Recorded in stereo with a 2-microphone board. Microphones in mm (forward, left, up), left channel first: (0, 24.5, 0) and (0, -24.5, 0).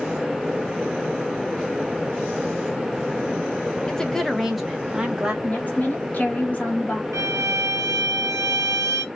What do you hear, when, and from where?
3.9 s a woman speaking: 15° left (ahead or behind), 1.0 m; by 5.3 s 15° right (ahead or behind), 1.5 m
5.4 s a woman speaking: 35° left (ahead or behind), 2.5 m
7.1 s a violin: 75° right (ahead or behind), 1.0 m